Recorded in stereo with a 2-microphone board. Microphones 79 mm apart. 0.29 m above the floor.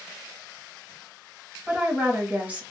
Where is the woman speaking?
20° right (ahead or behind), 1.3 m.